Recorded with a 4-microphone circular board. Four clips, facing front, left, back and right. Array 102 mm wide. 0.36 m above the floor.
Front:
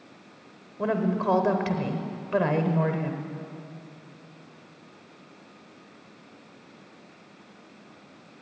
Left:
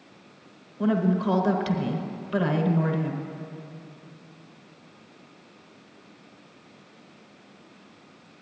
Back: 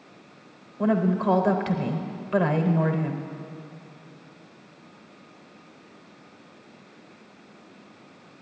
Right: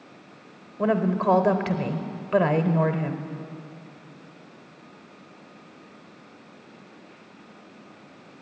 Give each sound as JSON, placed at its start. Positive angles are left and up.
{"t": 0.8, "sound": "a woman speaking", "azimuth_deg": -80, "distance_m": 0.9}